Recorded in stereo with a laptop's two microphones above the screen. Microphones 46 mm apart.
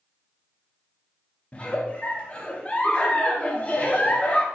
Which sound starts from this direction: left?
A giggle, at 1.5 s.